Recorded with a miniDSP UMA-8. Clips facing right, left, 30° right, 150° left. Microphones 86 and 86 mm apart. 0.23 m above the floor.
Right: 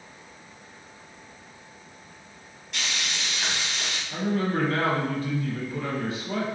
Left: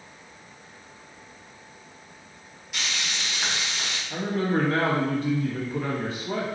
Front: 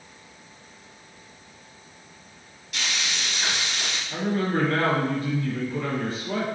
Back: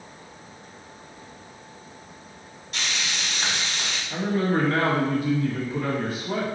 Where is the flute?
No flute in this recording.